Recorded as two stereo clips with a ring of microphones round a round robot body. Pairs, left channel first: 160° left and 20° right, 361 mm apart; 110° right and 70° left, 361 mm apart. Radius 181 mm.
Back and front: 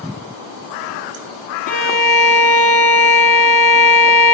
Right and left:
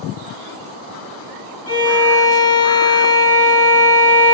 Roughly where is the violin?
Behind right.